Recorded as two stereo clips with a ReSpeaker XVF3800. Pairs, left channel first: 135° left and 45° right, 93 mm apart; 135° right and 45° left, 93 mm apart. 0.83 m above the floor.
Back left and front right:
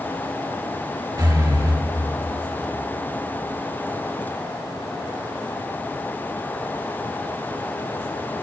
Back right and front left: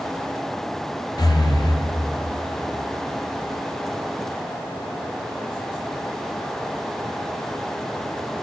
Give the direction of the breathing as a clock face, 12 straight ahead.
3 o'clock.